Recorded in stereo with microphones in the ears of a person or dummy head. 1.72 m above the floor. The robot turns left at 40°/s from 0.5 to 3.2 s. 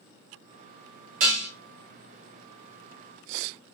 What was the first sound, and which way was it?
Dishes clattering, 45° right (ahead or behind).